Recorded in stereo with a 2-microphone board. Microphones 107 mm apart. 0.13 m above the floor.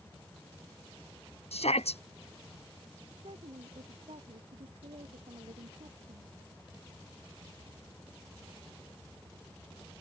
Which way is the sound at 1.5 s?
75° left (ahead or behind).